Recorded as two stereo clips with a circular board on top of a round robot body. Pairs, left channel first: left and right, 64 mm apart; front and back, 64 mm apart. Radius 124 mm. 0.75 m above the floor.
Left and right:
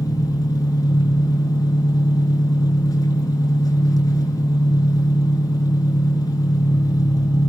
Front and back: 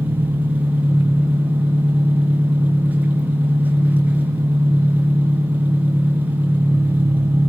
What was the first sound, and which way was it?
An engine running, 115° left.